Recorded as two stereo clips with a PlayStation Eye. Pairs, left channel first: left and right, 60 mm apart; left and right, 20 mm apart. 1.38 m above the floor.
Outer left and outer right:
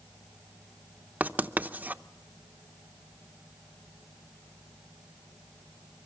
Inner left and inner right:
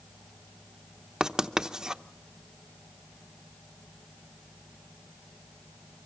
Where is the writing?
25° right (ahead or behind), 0.7 m.